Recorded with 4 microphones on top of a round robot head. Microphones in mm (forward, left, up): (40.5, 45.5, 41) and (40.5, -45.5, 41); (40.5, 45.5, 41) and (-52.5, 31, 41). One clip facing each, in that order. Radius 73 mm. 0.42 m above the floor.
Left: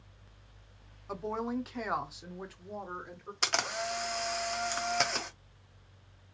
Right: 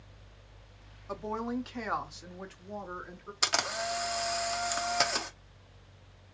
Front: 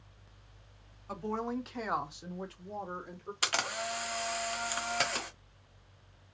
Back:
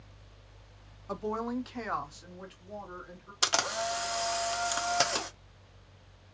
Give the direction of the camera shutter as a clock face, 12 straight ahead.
6 o'clock.